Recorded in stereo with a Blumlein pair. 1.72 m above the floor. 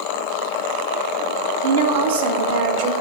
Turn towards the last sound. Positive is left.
turn(degrees=-50)